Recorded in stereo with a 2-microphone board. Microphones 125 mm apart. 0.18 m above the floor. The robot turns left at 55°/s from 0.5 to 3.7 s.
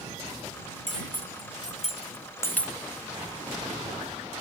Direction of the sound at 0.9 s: 75° left (ahead or behind).